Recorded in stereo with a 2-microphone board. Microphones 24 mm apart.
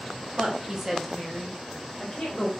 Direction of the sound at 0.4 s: 50° right (ahead or behind).